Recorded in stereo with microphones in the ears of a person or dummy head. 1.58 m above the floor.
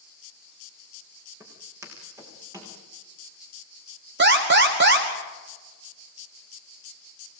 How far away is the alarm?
About 2.5 m.